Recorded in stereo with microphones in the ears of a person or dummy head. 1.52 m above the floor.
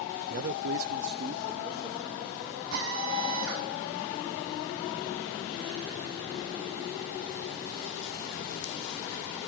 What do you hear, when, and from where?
0.3 s a man speaking: 35° right (ahead or behind), 0.7 m; by 2.6 s 30° right (ahead or behind), 2.5 m
2.7 s a drill: 75° right (ahead or behind), 5.5 m